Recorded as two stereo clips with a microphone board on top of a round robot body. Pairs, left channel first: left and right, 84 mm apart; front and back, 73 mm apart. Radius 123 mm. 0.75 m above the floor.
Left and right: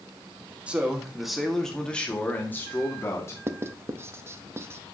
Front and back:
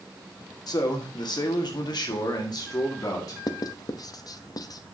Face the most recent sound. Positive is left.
turn(degrees=-30)